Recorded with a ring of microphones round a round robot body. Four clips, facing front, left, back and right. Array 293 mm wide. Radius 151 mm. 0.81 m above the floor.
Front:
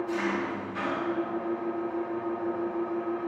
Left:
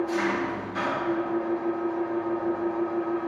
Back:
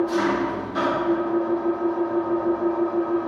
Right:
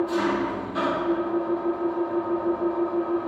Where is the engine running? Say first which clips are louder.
Right 2 dB, back 8 dB; 155° right, 0.9 m.